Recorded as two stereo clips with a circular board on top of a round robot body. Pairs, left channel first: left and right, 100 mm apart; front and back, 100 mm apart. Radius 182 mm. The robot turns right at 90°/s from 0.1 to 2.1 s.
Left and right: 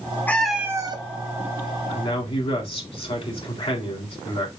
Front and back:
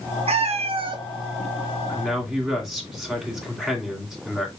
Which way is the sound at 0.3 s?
165° left.